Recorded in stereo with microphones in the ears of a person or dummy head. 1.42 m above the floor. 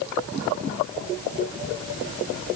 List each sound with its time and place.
Only background noise.